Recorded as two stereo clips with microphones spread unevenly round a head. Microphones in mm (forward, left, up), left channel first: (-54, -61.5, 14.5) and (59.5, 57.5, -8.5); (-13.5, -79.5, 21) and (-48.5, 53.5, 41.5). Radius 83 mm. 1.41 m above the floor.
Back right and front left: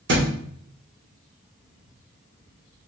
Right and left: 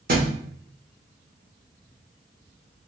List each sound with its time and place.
0.1 s a thud: 70° left, 2 m